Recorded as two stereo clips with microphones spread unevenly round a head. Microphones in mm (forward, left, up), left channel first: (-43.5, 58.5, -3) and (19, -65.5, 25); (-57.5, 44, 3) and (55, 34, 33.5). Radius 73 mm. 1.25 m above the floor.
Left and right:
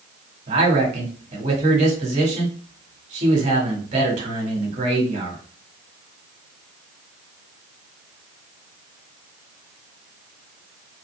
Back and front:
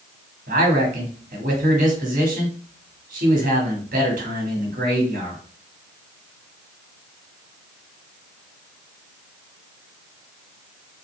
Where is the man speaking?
20° right, 1.9 m.